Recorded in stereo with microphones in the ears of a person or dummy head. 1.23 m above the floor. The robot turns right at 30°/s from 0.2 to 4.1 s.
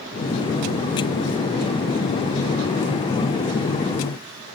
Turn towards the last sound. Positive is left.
No sound to turn to.